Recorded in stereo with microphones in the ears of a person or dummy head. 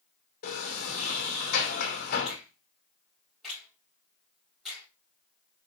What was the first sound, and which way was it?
A sliding door, 45° left (ahead or behind).